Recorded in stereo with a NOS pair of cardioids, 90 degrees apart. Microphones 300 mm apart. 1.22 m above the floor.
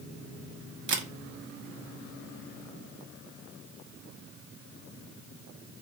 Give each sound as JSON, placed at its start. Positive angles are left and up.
{"t": 0.9, "sound": "a camera shutter", "azimuth_deg": -45, "distance_m": 0.6}